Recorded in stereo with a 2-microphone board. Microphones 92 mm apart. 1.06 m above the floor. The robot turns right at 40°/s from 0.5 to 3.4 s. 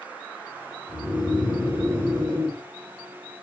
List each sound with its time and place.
0.9 s snoring: 170° left, 1.7 m; by 2.6 s 125° right, 1.7 m